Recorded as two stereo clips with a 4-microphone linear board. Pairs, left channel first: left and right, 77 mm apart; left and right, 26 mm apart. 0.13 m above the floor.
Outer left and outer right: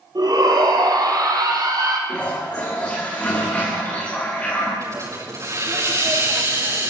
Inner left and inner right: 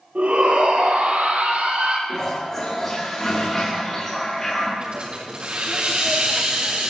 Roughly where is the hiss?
Right.